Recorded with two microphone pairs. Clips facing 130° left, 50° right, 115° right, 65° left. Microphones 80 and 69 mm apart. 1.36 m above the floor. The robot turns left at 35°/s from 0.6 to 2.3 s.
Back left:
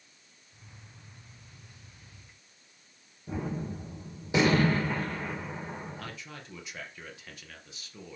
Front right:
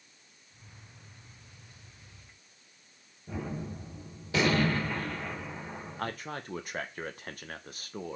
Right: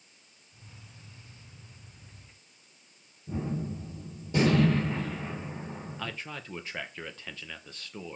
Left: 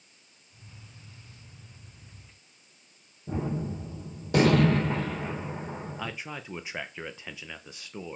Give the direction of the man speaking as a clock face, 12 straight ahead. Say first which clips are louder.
Front right 7 dB, left 2 dB; 12 o'clock.